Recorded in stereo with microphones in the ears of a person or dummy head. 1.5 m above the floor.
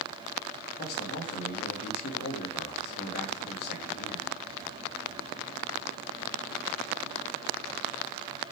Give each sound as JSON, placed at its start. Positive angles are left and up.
{"t": 0.8, "sound": "a man speaking", "side_deg": 55, "distance_m": 2.5}